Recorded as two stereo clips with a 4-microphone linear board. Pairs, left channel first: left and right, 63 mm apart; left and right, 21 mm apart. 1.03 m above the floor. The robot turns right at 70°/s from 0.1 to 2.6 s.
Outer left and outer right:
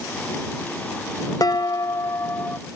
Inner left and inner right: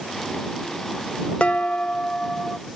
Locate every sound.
1.4 s dishes clattering: 70° left; by 2.6 s 155° left